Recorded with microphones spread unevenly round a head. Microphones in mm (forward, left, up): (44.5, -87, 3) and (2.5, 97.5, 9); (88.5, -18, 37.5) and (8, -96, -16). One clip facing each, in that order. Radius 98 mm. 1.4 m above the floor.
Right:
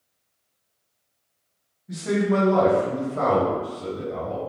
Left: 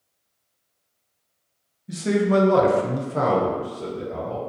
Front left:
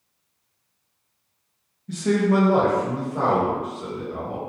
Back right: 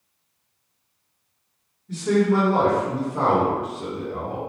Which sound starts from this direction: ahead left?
A man speaking, at 1.9 s.